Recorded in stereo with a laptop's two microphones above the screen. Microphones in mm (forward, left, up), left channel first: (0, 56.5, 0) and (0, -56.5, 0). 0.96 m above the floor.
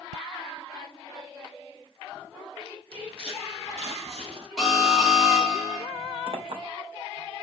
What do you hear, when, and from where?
2.9 s footsteps: 55° right (ahead or behind), 3 m
4.6 s an alarm: 5° right (ahead or behind), 3 m
6.3 s a clink: 60° right (ahead or behind), 2.0 m